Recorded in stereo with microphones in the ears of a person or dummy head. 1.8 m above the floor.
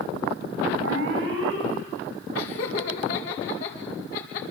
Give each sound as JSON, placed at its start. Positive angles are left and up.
{"t": 0.8, "sound": "an alarm", "side_deg": -85, "distance_m": 8.0}
{"t": 2.4, "sound": "laughter", "side_deg": 55, "distance_m": 4.5}